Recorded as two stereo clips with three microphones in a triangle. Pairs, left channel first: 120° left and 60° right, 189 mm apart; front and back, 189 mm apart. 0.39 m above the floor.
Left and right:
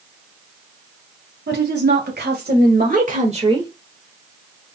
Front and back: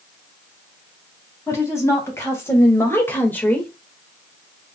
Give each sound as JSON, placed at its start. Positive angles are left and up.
{"t": 1.5, "sound": "a woman speaking", "azimuth_deg": -75, "distance_m": 3.5}